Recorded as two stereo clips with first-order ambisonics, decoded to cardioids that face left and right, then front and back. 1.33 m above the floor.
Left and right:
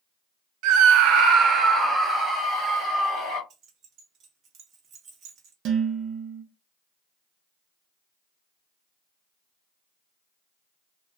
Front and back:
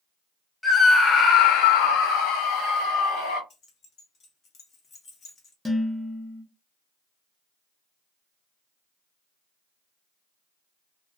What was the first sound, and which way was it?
A scream, 80° right.